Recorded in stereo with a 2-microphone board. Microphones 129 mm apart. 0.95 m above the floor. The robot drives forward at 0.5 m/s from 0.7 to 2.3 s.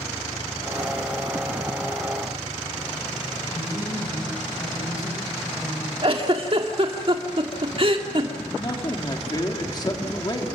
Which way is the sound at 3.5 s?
25° left (ahead or behind).